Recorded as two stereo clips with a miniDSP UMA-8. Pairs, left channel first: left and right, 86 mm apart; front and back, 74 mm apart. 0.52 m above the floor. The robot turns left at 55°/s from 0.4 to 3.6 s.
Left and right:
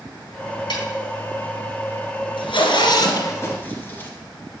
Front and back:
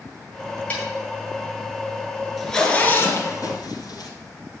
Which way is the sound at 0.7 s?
70° left.